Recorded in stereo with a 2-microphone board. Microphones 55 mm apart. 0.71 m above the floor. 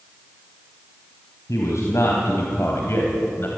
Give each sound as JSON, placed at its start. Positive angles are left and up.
{"t": 1.5, "sound": "a man speaking", "side_deg": 65, "distance_m": 4.0}